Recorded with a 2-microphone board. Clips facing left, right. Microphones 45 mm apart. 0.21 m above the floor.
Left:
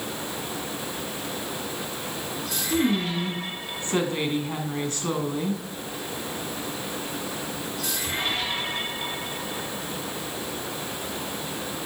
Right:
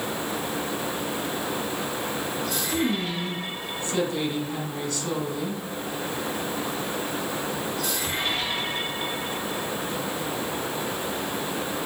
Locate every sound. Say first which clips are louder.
2.7 s a woman speaking: left 4 dB; 40° left (ahead or behind), 1.5 m